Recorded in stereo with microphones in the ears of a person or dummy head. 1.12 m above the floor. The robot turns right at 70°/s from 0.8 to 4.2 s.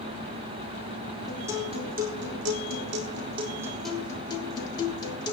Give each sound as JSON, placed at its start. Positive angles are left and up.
{"t": 1.3, "sound": "a guitar", "azimuth_deg": 180, "distance_m": 3.5}